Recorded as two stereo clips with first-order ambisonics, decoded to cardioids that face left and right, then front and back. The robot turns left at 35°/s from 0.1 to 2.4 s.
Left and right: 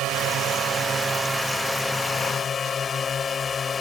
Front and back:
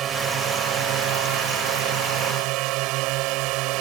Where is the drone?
130° right; by 3.8 s 160° left.